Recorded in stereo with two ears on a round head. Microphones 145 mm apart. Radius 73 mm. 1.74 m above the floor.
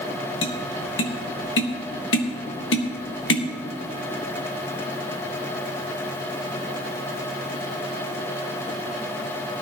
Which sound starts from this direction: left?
Tapping, at 0.4 s.